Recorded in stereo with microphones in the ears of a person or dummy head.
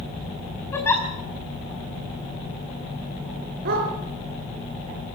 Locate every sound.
0.7 s a giggle: 15° left (ahead or behind), 5 m
3.6 s a dog barking: 60° right (ahead or behind), 5 m